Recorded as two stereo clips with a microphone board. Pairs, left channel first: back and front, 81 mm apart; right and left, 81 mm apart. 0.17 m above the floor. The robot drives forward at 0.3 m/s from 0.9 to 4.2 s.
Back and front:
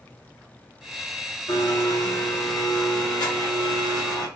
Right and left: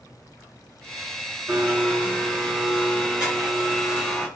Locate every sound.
1.5 s a blender: 160° left, 2.5 m; by 4.3 s 165° left, 3 m